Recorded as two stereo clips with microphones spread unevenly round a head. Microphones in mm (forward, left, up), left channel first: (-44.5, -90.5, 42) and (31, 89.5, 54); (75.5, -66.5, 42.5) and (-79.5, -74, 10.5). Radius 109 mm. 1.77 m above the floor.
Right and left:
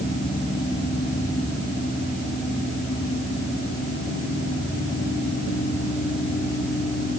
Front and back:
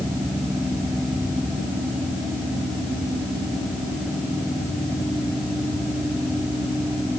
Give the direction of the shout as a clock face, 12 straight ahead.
I don't hear a shout.